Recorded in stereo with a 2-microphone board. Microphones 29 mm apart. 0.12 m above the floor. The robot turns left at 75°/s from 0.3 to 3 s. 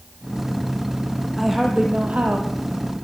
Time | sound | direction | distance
1.4 | a woman speaking | 5° left | 5 m